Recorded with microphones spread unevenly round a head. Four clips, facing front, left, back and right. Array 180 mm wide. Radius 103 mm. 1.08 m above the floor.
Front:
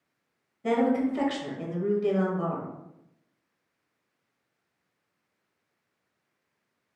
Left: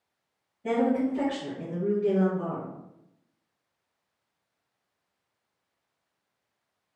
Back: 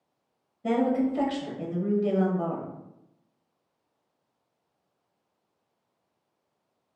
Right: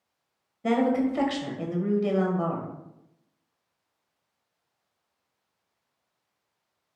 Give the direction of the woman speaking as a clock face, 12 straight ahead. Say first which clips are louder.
Right 2 dB, even; 2 o'clock.